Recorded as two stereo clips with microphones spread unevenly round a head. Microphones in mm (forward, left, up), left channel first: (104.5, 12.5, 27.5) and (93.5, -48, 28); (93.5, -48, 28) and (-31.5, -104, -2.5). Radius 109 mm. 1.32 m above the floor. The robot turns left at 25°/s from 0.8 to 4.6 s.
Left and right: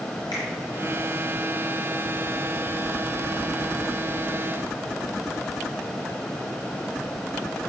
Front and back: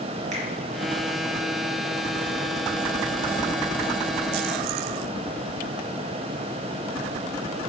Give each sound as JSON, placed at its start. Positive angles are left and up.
{"t": 0.3, "sound": "a finger snap", "azimuth_deg": 140, "distance_m": 0.9}